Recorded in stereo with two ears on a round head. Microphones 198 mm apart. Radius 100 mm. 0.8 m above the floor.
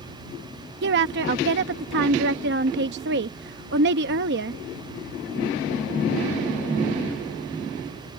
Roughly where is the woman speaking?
Right.